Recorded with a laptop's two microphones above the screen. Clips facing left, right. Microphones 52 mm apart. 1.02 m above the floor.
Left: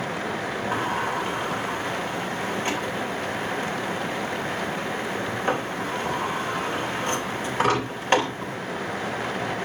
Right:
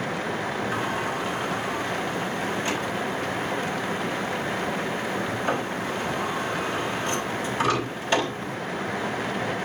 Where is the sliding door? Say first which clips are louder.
Left 2 dB; 45° left (ahead or behind), 3.5 m.